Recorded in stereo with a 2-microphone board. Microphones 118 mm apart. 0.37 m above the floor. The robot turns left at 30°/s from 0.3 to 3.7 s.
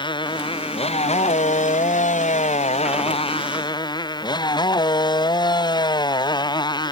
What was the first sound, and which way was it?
A motorcycle, 140° left.